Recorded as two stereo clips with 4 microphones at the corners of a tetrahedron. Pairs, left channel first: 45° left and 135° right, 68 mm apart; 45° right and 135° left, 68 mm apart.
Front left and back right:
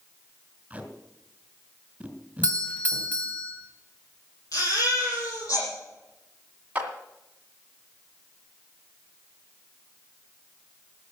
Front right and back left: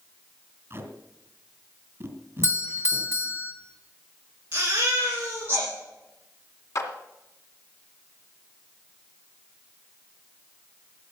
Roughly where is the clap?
Right.